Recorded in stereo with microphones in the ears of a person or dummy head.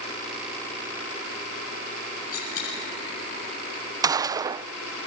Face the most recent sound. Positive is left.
turn(degrees=-20)  # may be behind; listen again after turning